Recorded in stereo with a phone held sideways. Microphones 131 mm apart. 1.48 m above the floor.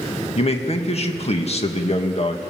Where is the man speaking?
55° left (ahead or behind), 1.9 m.